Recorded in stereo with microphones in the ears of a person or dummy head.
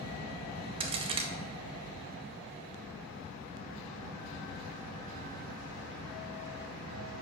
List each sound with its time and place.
0.8 s a crack: 30° right (ahead or behind), 0.5 m